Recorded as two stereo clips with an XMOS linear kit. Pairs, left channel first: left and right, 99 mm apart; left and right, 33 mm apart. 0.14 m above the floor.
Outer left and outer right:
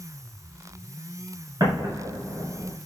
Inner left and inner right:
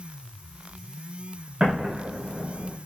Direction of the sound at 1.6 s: 40° right (ahead or behind).